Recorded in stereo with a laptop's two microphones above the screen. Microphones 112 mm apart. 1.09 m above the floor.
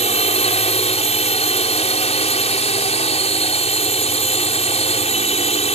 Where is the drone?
75° left (ahead or behind).